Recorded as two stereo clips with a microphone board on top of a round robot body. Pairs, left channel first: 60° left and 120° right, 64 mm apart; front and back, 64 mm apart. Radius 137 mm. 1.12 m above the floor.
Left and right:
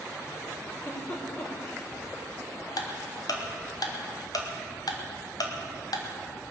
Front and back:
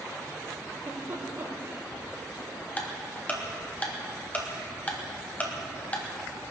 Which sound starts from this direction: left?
Ticking, at 2.8 s.